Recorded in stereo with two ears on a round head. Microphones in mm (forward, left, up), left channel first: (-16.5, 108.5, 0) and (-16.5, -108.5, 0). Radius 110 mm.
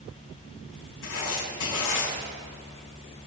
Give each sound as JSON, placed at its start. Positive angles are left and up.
{"t": 1.0, "sound": "writing", "side_deg": 55, "distance_m": 6.0}